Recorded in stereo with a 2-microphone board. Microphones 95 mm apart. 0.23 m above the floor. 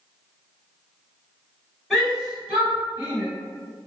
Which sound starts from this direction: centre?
A shout, at 1.9 s.